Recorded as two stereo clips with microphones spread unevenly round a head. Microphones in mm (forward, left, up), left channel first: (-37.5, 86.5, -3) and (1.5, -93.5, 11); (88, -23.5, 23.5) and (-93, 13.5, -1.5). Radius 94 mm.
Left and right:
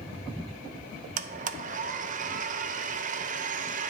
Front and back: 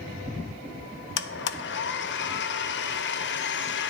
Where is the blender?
30° right, 0.5 m.